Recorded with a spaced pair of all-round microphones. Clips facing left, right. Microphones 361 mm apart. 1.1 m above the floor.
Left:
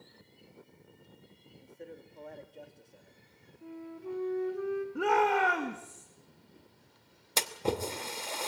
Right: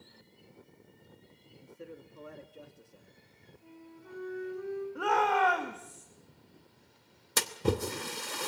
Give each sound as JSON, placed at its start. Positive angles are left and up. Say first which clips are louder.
{"t": 1.5, "sound": "a man speaking", "louder": "even", "side_deg": -15, "distance_m": 2.0}
{"t": 3.6, "sound": "a flute", "louder": "left 10 dB", "side_deg": 75, "distance_m": 2.5}
{"t": 5.0, "sound": "a shout", "louder": "left 2 dB", "side_deg": 35, "distance_m": 1.8}
{"t": 7.4, "sound": "a splash", "louder": "right 2 dB", "side_deg": -20, "distance_m": 1.1}